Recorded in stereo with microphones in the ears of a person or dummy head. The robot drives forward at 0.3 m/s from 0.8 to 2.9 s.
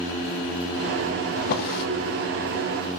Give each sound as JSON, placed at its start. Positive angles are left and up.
{"t": 1.4, "sound": "a drawer", "side_deg": 50, "distance_m": 0.6}